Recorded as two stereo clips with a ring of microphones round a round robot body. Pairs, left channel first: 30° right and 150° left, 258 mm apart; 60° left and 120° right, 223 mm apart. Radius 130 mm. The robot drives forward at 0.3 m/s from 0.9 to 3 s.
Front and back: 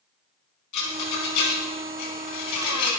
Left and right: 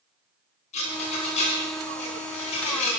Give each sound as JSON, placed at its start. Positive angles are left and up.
{"t": 0.7, "sound": "a rattle", "azimuth_deg": -5, "distance_m": 4.5}